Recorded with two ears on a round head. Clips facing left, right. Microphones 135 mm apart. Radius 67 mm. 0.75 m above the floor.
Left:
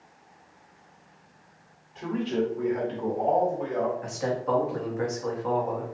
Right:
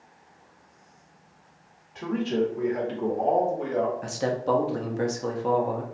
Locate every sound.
1.9 s a man speaking: 65° right (ahead or behind), 1.9 m; by 3.9 s 40° right (ahead or behind), 1.5 m
4.0 s a man speaking: 40° right (ahead or behind), 0.8 m